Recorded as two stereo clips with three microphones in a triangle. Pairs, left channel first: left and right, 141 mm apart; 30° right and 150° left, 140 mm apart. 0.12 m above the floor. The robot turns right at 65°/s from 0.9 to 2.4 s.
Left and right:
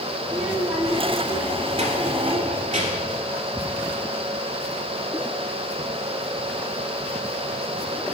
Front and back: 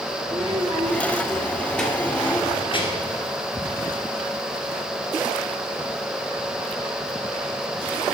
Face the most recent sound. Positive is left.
turn(degrees=-65)